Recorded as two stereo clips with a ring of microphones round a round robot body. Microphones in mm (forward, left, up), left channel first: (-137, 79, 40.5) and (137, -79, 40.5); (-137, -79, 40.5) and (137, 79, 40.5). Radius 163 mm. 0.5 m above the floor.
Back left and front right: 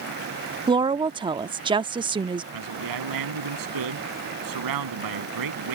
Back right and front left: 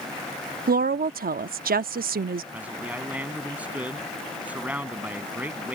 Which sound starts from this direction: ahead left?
A woman speaking, at 0.7 s.